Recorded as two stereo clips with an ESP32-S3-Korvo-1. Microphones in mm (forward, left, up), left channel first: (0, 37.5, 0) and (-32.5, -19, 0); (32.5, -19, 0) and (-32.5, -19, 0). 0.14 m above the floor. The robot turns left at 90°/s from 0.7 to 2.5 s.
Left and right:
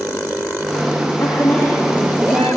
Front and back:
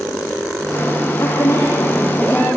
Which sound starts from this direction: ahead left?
A woman speaking, at 1.2 s.